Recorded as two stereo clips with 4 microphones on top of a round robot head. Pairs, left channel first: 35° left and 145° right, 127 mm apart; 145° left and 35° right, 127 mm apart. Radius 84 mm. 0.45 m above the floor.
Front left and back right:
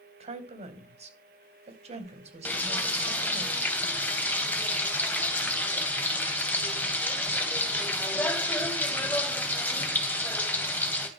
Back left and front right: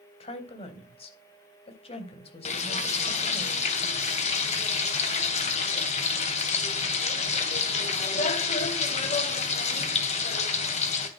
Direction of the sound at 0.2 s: 175° right.